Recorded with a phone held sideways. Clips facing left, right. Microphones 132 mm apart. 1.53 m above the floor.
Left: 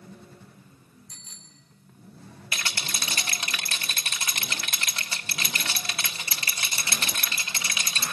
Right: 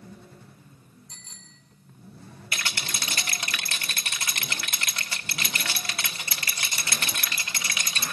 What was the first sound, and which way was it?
A bicycle bell, 25° right (ahead or behind).